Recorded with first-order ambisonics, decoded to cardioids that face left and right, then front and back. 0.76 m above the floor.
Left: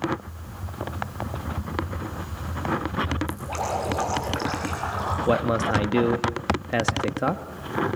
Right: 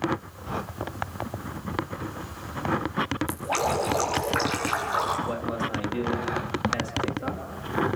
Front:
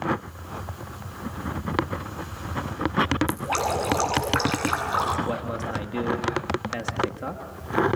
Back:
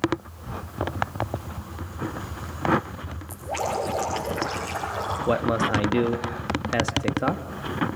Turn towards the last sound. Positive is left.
turn(degrees=120)